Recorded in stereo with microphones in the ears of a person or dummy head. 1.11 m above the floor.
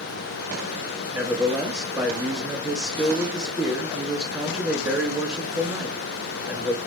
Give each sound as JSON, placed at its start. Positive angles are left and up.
{"t": 1.1, "sound": "a man speaking", "side_deg": -15, "distance_m": 2.0}